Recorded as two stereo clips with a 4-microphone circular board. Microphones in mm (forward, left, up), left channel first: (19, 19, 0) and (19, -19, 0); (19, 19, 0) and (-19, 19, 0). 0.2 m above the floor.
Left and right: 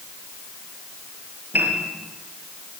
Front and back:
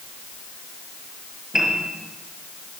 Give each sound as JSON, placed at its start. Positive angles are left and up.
{"t": 1.5, "sound": "a piano", "azimuth_deg": -110, "distance_m": 5.0}